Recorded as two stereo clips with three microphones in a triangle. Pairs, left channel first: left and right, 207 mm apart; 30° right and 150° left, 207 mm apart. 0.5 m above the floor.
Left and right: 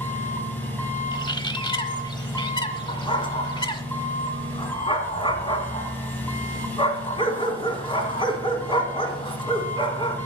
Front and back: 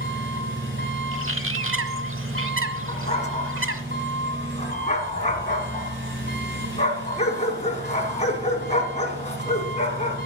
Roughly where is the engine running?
Behind.